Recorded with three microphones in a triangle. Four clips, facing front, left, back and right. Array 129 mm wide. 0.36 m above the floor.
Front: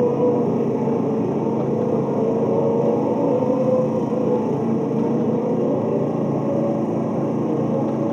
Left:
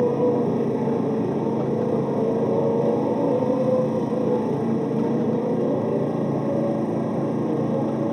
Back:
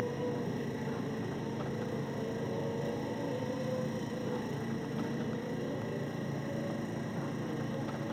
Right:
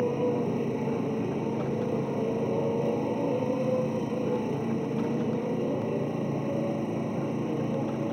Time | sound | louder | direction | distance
0.0 | a motorcycle | left 7 dB, front 18 dB | 25° left | ?